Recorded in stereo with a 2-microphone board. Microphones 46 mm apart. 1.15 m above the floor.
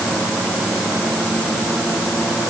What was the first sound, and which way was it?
Only background noise.